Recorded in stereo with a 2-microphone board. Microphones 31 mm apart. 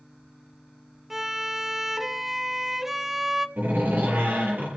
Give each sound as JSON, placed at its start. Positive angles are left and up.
{"t": 1.1, "sound": "a violin", "side_deg": -10, "distance_m": 0.6}
{"t": 3.6, "sound": "a door slam", "side_deg": -70, "distance_m": 7.5}